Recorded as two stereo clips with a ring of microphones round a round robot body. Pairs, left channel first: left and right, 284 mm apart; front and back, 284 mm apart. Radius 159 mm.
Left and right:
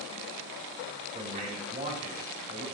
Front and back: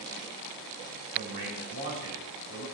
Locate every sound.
1.1 s a man speaking: 155° right, 5 m